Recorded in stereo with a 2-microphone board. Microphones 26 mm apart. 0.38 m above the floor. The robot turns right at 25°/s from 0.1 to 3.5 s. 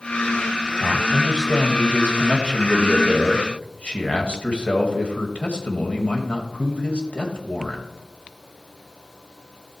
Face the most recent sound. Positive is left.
turn(degrees=90)